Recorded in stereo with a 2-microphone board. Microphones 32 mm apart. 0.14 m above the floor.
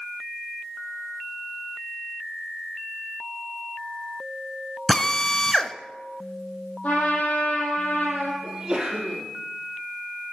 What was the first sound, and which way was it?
A drill, 20° left (ahead or behind).